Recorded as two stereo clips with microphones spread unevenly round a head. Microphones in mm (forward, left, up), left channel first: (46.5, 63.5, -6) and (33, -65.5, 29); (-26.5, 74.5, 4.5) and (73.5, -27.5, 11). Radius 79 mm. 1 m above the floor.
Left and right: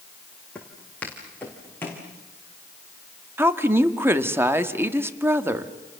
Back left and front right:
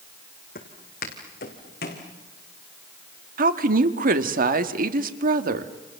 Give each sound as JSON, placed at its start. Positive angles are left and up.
{"t": 0.6, "sound": "footsteps", "azimuth_deg": 170, "distance_m": 3.5}
{"t": 3.4, "sound": "a woman speaking", "azimuth_deg": -20, "distance_m": 1.6}